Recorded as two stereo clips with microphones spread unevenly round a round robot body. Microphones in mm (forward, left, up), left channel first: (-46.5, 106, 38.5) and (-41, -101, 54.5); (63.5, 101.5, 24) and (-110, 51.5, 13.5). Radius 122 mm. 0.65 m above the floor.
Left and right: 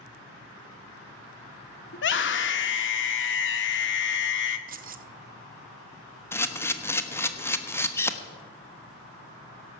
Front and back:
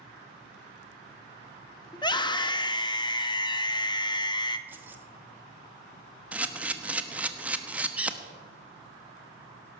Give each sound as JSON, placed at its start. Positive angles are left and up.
{"t": 1.9, "sound": "a scream", "azimuth_deg": 80, "distance_m": 1.3}
{"t": 4.7, "sound": "keys jangling", "azimuth_deg": -95, "distance_m": 0.6}
{"t": 6.3, "sound": "a camera shutter", "azimuth_deg": 135, "distance_m": 1.0}